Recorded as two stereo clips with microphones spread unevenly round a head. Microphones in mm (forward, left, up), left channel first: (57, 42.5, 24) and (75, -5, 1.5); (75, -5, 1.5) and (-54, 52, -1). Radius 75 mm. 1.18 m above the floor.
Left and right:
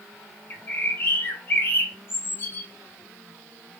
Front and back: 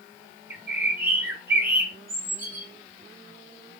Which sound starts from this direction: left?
A bird, at 0.5 s.